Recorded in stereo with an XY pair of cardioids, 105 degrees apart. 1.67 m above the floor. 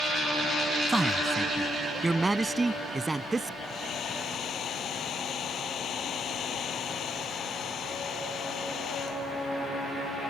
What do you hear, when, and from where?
0.9 s a man speaking: 15° right; by 3.5 s 20° right
3.6 s a hair dryer: 60° left